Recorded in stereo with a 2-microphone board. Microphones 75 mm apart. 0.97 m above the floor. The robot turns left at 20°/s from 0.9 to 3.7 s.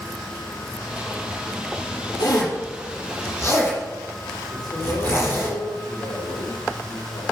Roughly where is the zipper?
Left.